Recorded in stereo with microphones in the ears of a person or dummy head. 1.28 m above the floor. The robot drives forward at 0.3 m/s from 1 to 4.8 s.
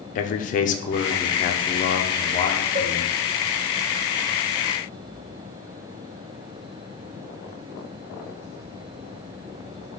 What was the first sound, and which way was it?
A man speaking, 40° left (ahead or behind).